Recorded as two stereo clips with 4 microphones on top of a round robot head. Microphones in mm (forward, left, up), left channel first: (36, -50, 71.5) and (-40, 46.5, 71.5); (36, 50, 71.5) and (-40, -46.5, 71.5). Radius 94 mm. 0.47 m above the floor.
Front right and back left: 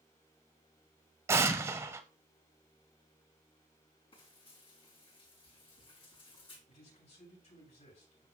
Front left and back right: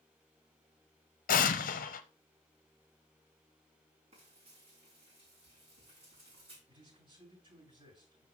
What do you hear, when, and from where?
1.3 s an explosion: 60° left, 0.8 m
4.1 s frying: 90° right, 4.5 m
6.7 s a man speaking: 75° right, 7 m